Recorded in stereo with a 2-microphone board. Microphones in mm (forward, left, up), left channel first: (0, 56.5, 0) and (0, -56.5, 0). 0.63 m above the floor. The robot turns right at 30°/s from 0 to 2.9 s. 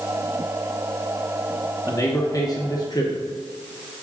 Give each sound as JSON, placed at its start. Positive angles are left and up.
{"t": 1.9, "sound": "a man speaking", "azimuth_deg": 50, "distance_m": 0.8}